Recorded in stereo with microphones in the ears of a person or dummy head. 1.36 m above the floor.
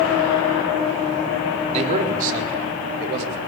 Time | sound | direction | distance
1.7 | a man speaking | 40° right (ahead or behind) | 4 m